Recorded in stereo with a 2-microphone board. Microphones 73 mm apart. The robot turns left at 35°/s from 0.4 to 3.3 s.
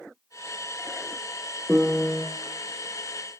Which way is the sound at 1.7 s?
10° right (ahead or behind).